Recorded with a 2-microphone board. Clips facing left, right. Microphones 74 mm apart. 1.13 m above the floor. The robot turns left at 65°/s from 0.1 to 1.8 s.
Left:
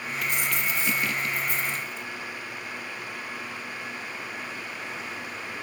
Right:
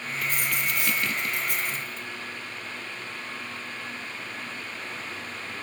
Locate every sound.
0.2 s a dropped coin: 35° right, 5 m; by 2.1 s 135° right, 5 m